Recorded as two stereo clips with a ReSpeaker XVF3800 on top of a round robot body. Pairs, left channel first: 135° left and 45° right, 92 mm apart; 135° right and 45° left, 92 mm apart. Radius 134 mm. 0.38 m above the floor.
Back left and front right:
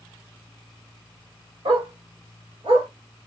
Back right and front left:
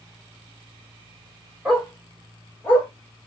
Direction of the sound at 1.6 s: 45° right.